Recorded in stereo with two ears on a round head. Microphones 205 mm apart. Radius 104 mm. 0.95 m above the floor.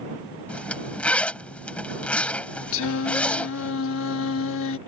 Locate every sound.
0.5 s a zipper: 5° left (ahead or behind)
2.7 s singing: 65° left (ahead or behind)